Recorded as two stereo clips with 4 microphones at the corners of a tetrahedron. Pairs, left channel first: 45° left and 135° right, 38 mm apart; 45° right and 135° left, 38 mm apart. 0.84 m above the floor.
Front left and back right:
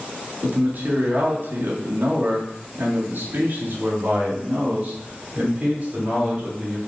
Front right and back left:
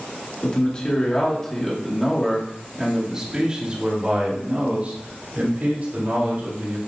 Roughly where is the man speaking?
Right.